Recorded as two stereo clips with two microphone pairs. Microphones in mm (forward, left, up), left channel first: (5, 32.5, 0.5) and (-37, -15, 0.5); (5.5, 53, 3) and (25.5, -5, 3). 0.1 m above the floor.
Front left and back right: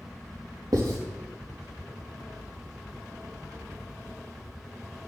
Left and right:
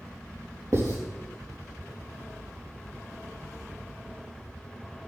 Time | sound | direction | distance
0.7 | writing | 115° right | 4 m